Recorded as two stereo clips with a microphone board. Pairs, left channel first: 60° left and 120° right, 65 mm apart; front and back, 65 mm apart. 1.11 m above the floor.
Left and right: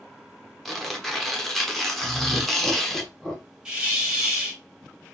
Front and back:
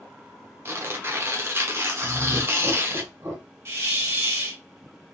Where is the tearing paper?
145° left, 0.8 m.